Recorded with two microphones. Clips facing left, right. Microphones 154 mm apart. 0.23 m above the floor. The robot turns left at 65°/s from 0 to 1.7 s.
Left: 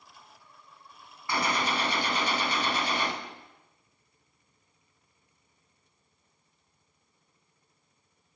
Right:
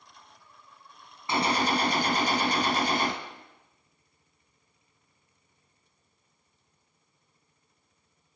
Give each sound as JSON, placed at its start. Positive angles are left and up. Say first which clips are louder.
{"t": 1.3, "sound": "a gunshot", "louder": "right 3 dB", "side_deg": -25, "distance_m": 1.1}